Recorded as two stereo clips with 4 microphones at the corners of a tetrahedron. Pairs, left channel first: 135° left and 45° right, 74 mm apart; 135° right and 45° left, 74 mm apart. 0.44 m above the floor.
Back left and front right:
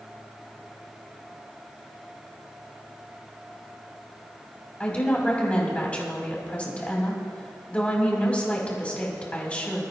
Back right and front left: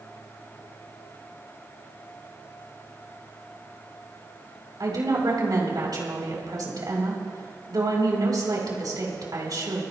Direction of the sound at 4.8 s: 65° left.